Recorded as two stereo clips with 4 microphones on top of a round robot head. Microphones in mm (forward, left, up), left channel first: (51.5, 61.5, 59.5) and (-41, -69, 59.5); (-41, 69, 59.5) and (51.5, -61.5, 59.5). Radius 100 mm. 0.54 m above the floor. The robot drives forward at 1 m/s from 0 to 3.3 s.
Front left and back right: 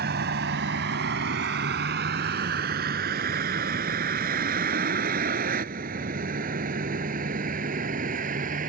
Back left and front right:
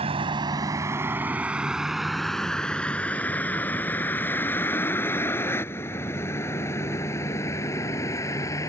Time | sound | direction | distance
0.0 | a vehicle | 105° right | ?